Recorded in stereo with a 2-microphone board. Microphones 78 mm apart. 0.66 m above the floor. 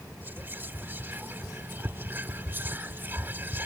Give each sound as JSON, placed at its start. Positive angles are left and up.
{"t": 0.2, "sound": "whispering", "side_deg": -30}